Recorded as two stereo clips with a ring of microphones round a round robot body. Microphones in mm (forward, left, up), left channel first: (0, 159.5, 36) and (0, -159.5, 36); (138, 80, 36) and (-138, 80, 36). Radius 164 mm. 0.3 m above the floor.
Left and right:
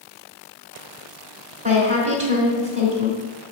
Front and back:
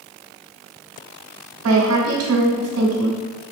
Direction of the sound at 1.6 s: 155° right.